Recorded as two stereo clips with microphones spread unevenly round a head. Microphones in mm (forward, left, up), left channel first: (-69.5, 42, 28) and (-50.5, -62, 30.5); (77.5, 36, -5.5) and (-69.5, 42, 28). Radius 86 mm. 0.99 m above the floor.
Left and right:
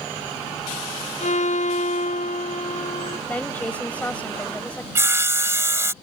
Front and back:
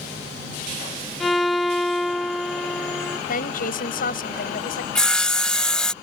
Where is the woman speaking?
20° left.